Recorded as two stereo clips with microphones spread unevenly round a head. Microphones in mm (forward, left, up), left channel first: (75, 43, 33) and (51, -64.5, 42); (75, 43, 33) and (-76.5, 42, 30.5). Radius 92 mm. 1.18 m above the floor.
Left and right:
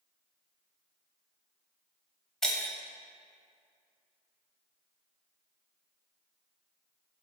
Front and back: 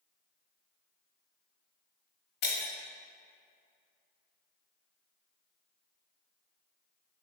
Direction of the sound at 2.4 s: 10° right.